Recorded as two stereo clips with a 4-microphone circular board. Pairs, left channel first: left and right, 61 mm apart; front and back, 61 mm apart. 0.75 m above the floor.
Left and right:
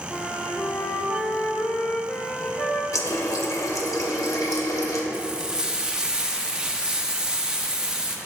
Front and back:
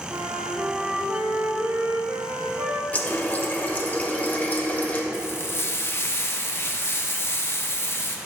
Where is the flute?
145° left, 0.8 m.